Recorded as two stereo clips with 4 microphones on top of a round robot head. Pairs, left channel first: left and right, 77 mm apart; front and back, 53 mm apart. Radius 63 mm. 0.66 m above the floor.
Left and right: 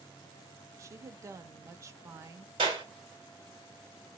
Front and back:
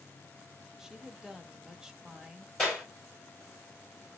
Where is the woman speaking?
105° right, 0.6 m.